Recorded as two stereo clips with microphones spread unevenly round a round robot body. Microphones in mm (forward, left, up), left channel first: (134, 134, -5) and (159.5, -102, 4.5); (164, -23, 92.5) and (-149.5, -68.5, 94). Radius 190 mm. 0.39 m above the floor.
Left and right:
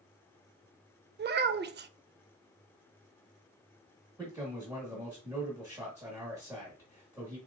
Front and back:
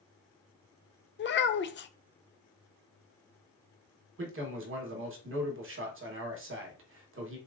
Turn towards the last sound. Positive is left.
turn(degrees=-160)